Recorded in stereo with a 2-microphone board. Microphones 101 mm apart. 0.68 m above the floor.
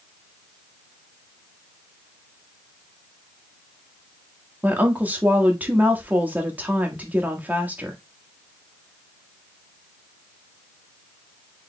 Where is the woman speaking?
15° right (ahead or behind), 1.1 m.